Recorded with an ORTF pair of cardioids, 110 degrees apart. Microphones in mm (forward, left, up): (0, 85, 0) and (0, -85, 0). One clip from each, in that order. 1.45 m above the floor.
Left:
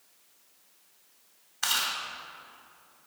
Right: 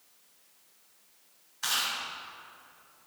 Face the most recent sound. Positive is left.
turn(degrees=50)